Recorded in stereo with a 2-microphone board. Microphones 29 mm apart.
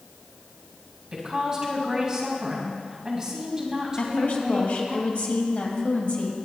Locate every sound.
1.1 s a woman speaking: 15° right (ahead or behind), 3 m
4.0 s a woman speaking: 65° left (ahead or behind), 2 m